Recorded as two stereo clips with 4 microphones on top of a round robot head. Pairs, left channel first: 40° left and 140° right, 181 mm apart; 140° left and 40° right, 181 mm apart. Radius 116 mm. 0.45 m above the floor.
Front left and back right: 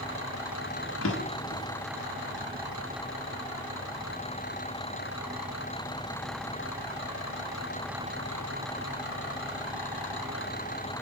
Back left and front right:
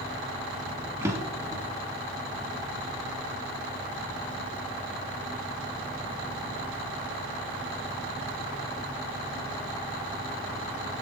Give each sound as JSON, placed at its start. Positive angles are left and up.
{"t": 1.0, "sound": "a drawer", "azimuth_deg": 40, "distance_m": 1.3}